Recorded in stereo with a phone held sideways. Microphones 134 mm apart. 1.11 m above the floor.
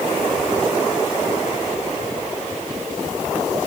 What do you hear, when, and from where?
Only background noise.